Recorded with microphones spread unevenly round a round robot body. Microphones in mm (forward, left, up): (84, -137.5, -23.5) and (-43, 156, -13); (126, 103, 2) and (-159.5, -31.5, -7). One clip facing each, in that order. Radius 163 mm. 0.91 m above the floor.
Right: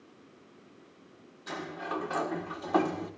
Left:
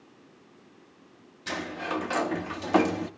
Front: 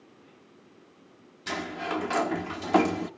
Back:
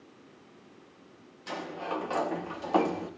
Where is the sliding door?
75° left, 1.1 m.